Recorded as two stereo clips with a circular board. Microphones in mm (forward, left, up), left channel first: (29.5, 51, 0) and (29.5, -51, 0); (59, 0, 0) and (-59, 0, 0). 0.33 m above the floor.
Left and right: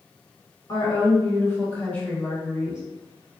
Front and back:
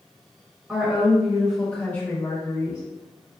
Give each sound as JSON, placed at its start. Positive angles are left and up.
{"t": 0.7, "sound": "a woman speaking", "azimuth_deg": 110, "distance_m": 1.4}